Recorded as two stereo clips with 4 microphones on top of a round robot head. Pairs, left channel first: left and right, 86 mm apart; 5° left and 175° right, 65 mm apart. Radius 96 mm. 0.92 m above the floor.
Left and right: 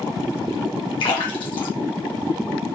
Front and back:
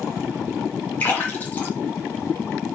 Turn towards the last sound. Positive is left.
turn(degrees=65)